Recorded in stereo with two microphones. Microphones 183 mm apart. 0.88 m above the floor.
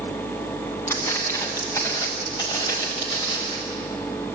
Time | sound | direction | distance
0.9 | footsteps | 15° left (ahead or behind) | 5.5 m